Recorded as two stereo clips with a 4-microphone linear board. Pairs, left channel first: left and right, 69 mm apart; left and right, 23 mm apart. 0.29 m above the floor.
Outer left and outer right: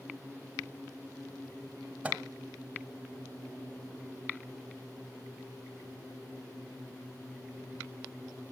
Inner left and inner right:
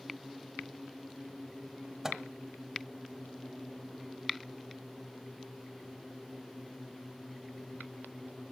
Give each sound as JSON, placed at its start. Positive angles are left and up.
{"t": 2.0, "sound": "a microwave", "side_deg": -20, "distance_m": 1.3}